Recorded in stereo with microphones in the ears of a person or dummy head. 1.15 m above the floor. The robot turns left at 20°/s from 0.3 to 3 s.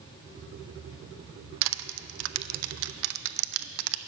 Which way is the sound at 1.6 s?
80° right.